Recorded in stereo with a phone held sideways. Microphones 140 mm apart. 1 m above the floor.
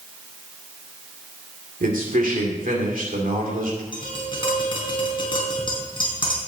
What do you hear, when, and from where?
1.8 s a man speaking: 80° right, 2.5 m
3.9 s tapping: 35° left (ahead or behind), 3.5 m